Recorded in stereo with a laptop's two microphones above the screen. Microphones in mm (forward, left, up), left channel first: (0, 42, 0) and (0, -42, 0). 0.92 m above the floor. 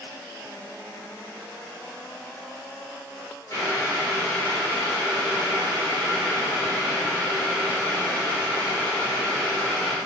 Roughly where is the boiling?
Left.